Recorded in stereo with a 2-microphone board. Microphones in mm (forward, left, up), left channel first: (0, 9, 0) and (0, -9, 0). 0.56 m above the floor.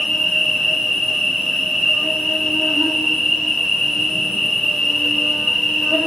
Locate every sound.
0.0 s an insect: 55° left (ahead or behind), 1.5 m